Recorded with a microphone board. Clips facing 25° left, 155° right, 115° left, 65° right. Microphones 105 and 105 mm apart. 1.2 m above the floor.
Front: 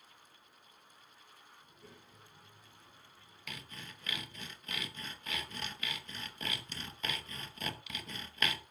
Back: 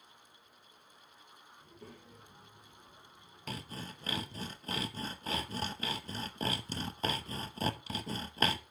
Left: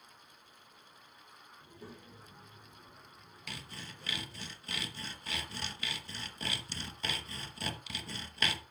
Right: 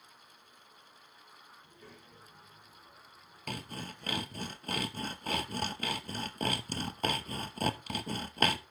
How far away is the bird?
No bird in this recording.